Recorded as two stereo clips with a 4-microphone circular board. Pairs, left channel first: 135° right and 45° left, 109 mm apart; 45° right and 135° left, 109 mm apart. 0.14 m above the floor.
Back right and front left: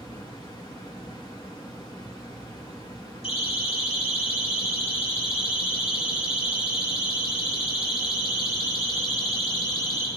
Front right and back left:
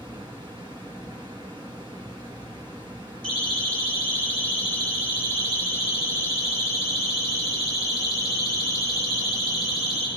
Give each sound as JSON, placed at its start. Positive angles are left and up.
{"t": 0.0, "sound": "running water", "azimuth_deg": 180, "distance_m": 3.0}
{"t": 3.2, "sound": "a siren", "azimuth_deg": -125, "distance_m": 8.0}